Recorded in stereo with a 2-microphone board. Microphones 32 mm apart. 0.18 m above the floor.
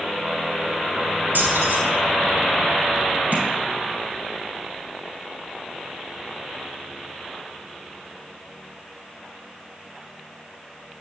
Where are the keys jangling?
70° right (ahead or behind), 2 m.